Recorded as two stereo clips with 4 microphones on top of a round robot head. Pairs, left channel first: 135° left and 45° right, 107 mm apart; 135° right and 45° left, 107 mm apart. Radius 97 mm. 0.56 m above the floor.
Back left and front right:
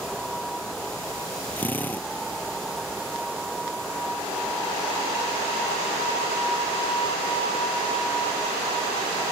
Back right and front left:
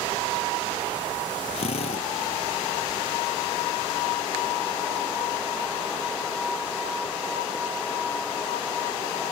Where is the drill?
155° right.